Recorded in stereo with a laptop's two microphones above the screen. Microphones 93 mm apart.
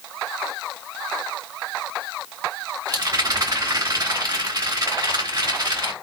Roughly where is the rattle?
Right.